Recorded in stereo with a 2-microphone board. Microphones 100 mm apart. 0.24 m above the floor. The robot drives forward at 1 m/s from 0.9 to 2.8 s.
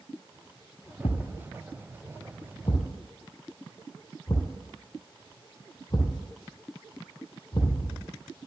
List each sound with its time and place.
1.0 s a thud: 70° left (ahead or behind), 1.4 m; by 8.1 s 40° left (ahead or behind), 1.9 m